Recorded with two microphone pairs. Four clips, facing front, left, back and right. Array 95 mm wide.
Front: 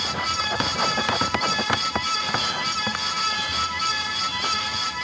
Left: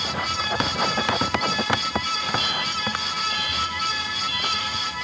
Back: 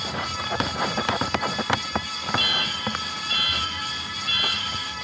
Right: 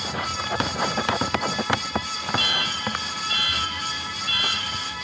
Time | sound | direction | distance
2.4 | an alarm | 115° right | ?